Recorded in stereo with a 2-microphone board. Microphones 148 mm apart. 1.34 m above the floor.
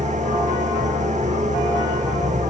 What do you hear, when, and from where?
0.0 s an engine running: 55° right (ahead or behind)